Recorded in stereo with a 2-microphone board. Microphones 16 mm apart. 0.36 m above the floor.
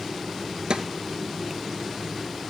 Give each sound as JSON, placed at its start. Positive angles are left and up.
{"t": 0.7, "sound": "a snare drum", "side_deg": -75, "distance_m": 2.0}